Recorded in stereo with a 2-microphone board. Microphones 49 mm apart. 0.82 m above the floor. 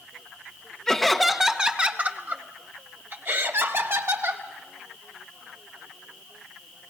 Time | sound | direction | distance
0.9 | laughter | 10° left (ahead or behind) | 1.0 m